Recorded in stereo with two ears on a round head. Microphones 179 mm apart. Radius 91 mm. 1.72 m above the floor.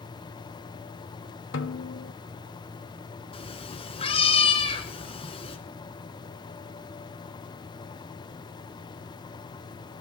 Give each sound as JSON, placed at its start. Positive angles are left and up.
{"t": 1.5, "sound": "a snare drum", "side_deg": 65, "distance_m": 1.4}
{"t": 3.3, "sound": "a cat meowing", "side_deg": 30, "distance_m": 2.5}